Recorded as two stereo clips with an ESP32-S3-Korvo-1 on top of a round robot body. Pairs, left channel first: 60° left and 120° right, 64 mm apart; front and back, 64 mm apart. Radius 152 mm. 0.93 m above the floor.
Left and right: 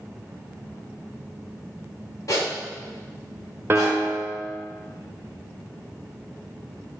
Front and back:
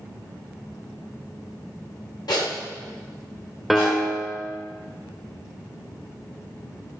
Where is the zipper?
20° left, 1.3 m.